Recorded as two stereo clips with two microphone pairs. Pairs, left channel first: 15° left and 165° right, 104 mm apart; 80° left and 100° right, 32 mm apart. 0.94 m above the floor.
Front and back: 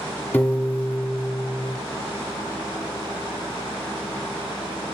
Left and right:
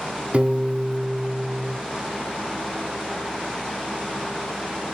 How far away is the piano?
About 0.9 m.